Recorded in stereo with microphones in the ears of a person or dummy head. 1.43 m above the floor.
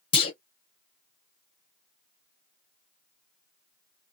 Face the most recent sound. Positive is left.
turn(degrees=30)  # may be behind; listen again after turning